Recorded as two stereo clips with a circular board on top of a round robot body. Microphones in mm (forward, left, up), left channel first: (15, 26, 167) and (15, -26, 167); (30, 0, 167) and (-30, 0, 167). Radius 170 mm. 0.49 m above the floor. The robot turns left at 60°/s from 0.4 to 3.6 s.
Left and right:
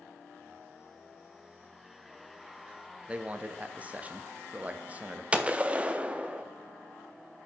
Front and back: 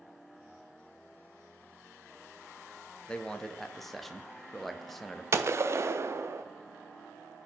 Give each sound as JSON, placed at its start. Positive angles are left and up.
{"t": 3.1, "sound": "a man speaking", "azimuth_deg": -50, "distance_m": 0.7}
{"t": 5.3, "sound": "a gunshot", "azimuth_deg": -150, "distance_m": 0.6}